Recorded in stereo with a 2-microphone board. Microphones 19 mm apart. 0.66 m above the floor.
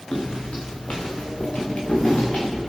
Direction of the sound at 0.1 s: 60° left (ahead or behind).